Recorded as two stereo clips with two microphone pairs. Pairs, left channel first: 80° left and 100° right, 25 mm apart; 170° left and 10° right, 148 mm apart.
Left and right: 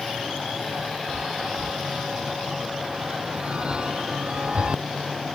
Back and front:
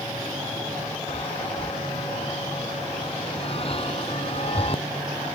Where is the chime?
145° right.